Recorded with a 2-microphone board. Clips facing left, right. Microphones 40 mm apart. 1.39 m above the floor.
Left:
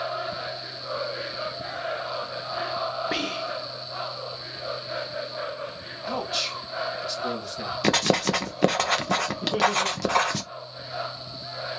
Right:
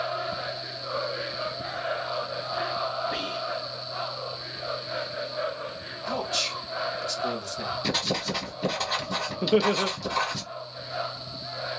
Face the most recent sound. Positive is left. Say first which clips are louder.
# right 4 dB
turn(degrees=-55)  # may be behind; listen again after turning